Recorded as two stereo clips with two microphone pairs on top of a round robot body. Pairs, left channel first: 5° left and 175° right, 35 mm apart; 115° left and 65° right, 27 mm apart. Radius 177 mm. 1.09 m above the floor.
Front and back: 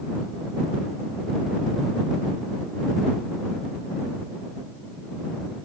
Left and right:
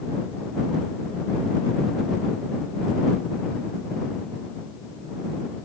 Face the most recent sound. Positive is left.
No sound to turn to.